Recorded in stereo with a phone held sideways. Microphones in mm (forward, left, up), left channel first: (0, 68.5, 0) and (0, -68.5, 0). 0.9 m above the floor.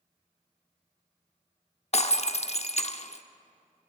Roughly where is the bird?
No bird in this recording.